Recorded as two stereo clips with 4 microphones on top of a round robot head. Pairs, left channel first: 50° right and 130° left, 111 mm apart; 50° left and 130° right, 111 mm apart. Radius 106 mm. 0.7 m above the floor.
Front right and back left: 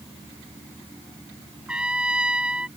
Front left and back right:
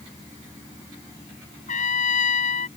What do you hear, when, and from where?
1.7 s a trumpet: 50° left